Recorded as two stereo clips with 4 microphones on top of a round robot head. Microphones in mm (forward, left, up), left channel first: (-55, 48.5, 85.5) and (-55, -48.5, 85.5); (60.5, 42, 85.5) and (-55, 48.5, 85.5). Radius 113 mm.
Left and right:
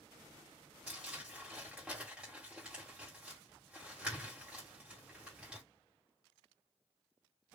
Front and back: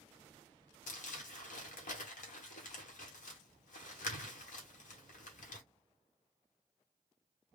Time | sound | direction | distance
0.9 | crumpling | 5° right | 1.2 m